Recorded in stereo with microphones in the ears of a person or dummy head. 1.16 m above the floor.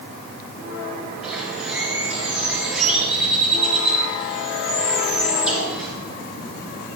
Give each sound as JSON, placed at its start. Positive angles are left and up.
{"t": 1.2, "sound": "a bird", "side_deg": 0, "distance_m": 3.5}